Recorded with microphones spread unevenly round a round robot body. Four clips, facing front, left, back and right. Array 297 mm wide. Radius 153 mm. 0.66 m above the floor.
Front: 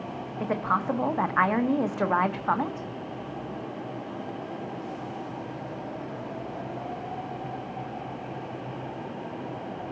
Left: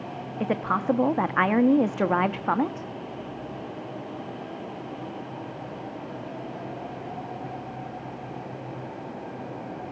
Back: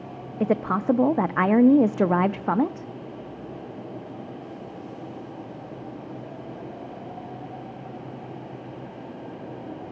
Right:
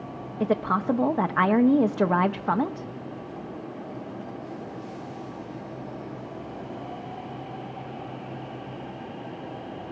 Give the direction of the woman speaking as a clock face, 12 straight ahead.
6 o'clock.